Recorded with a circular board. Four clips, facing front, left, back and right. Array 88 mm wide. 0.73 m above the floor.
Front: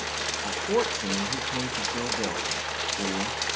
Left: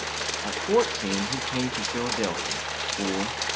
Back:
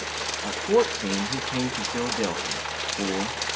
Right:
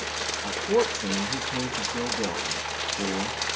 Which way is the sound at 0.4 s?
115° left.